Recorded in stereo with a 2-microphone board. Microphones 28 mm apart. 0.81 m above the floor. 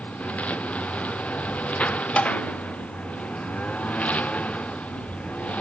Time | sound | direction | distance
0.0 | a lawn mower | 60° left (ahead or behind) | ?
2.2 | tapping | 60° left (ahead or behind) | ?